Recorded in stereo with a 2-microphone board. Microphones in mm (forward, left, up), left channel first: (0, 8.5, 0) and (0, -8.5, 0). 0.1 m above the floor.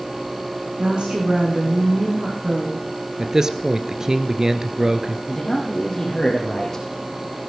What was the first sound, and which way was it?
A woman speaking, 70° right (ahead or behind).